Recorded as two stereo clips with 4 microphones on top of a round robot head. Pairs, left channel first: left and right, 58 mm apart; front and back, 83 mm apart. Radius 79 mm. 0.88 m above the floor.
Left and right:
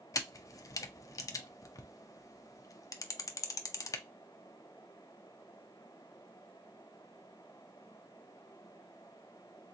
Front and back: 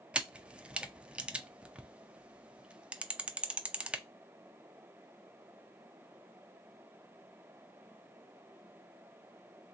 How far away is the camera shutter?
About 0.6 m.